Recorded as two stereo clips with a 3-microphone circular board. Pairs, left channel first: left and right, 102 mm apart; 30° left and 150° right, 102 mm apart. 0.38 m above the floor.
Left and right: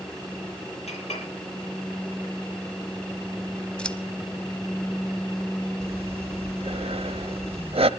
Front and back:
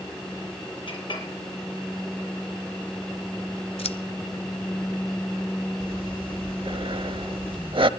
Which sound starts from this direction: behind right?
Breathing, at 5.8 s.